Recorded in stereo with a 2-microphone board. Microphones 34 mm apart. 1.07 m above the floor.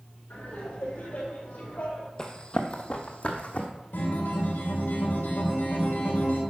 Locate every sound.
0.3 s laughter: 60° left (ahead or behind), 5 m; by 2.1 s 75° left (ahead or behind), 5 m
2.2 s running footsteps: 20° left (ahead or behind), 1.3 m; by 3.7 s 45° left (ahead or behind), 2 m
3.9 s a guitar: 85° left, 3.5 m